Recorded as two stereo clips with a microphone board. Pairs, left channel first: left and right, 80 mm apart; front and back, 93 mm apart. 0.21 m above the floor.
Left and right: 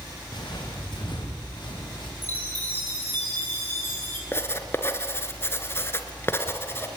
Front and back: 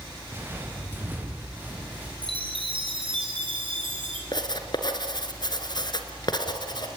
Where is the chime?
155° left, 4 m.